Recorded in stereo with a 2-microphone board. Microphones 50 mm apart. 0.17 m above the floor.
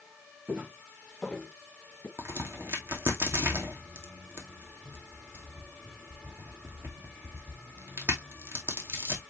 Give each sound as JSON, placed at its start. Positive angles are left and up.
{"t": 0.5, "sound": "footsteps", "side_deg": -25, "distance_m": 1.6}
{"t": 2.2, "sound": "a crack", "side_deg": -50, "distance_m": 2.5}